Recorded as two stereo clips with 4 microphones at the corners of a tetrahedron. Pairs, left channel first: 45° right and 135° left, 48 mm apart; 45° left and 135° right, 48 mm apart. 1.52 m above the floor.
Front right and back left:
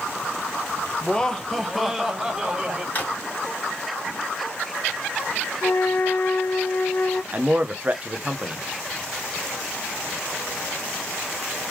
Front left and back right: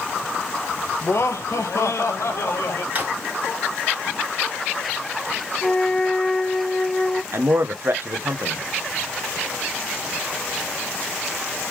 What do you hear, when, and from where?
1.0 s laughter: 25° left, 0.8 m; by 2.9 s 65° left, 1.4 m
3.0 s a drawer: 90° right, 1.9 m
5.6 s a flute: 30° right, 0.6 m
7.3 s a man speaking: 165° right, 0.9 m